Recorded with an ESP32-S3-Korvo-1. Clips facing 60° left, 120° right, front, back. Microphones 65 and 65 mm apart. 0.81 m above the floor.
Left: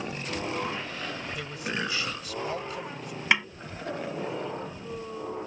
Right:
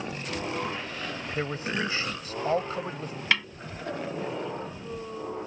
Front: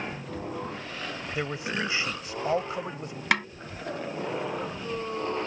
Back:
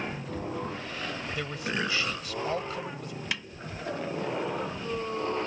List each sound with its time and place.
1.4 s a man speaking: 70° right
3.3 s a snare drum: 10° right